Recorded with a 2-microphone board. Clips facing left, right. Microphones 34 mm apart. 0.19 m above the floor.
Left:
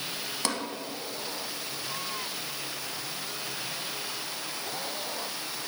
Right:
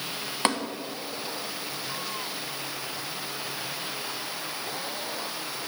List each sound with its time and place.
0.5 s tapping: 35° right (ahead or behind), 0.8 m